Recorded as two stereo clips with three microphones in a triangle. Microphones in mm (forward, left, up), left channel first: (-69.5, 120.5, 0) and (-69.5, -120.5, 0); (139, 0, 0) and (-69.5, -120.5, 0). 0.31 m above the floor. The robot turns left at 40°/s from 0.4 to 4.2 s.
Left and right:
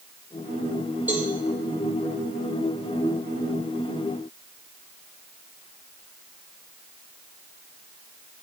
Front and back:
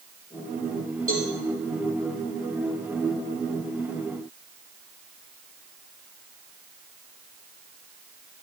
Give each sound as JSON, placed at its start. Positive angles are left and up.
{"t": 1.1, "sound": "a cowbell", "azimuth_deg": -175, "distance_m": 5.0}